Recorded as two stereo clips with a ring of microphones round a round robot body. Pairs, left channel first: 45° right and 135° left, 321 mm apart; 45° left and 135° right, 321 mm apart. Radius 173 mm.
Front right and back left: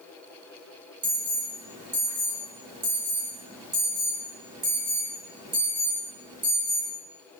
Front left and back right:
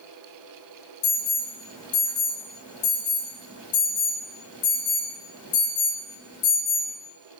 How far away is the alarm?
About 2.5 m.